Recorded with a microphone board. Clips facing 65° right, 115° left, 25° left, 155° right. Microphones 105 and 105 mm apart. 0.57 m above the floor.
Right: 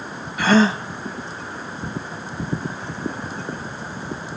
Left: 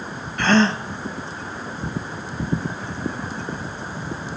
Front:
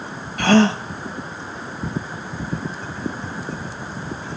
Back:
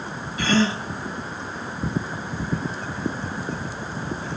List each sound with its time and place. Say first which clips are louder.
0.4 s a gasp: right 1 dB, front 6 dB; 15° left, 0.6 m